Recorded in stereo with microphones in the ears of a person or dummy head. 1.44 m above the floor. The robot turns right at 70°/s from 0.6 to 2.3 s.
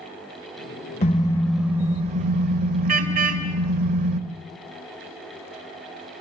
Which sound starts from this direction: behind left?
A car horn, at 1.0 s.